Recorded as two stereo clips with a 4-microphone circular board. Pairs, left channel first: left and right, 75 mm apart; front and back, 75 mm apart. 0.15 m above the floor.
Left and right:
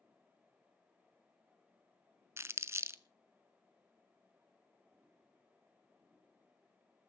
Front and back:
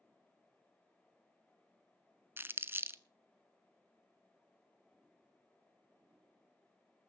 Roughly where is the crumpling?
Behind right.